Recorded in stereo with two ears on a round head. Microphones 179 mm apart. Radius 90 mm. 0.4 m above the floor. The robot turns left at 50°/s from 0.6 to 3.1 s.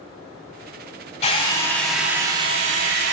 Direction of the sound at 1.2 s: 35° left.